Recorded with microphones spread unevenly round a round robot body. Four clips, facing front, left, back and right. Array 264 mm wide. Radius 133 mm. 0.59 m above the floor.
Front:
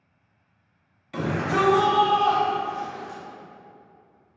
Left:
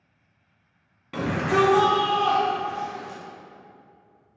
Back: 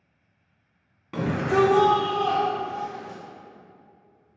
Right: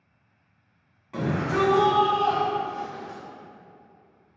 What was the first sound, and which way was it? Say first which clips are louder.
A shout: left 3 dB, back 2 dB; 135° left.